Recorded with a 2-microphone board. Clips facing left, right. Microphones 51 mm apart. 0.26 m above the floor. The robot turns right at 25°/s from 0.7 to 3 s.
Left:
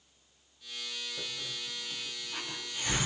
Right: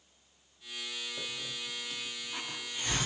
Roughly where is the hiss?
Centre.